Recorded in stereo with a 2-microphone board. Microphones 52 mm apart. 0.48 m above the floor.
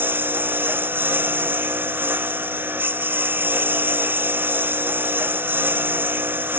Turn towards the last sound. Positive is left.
turn(degrees=-40)  # may be behind; listen again after turning